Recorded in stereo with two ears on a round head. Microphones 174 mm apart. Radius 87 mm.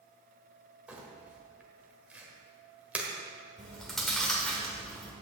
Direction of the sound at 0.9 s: 5° right (ahead or behind).